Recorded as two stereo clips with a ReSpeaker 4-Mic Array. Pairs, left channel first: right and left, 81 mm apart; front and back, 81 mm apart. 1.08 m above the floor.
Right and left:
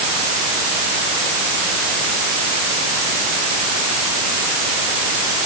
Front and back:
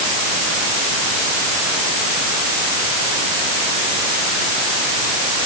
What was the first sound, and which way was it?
Only background noise.